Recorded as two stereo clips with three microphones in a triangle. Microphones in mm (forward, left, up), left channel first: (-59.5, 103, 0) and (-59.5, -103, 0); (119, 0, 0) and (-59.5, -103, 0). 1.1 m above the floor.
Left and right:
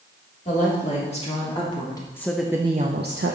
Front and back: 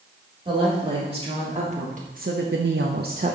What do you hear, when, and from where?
0.5 s a woman speaking: 145° left, 3 m; by 3.3 s 95° right, 0.9 m